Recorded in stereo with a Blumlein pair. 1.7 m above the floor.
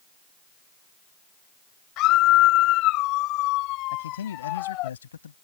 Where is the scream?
40° left.